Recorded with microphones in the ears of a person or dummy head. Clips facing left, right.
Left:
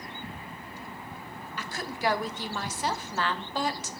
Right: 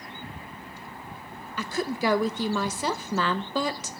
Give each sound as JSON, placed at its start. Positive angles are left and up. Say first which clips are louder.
{"t": 1.6, "sound": "a woman speaking", "louder": "right 6 dB", "side_deg": -70, "distance_m": 0.9}